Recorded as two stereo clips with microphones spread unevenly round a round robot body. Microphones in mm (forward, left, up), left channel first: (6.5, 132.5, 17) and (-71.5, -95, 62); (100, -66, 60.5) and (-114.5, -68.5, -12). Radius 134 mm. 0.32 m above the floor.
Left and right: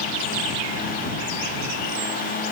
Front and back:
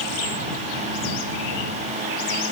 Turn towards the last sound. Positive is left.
No sound to turn to.